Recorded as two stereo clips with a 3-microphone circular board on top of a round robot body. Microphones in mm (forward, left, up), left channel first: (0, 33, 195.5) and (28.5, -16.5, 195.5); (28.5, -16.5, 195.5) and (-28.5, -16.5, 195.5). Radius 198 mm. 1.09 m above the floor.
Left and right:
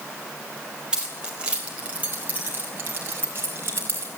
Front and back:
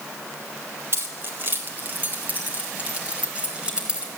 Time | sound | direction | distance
0.9 | keys jangling | 135° right | 3.5 m